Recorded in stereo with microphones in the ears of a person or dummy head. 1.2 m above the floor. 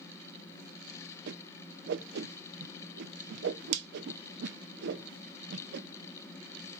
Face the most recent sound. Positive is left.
turn(degrees=-75)  # may be behind; listen again after turning